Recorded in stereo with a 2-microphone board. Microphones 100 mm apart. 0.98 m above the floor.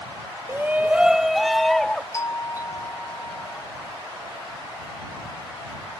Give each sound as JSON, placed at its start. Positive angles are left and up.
{"t": 0.5, "sound": "a shout", "side_deg": -25}
{"t": 2.1, "sound": "a doorbell", "side_deg": 35}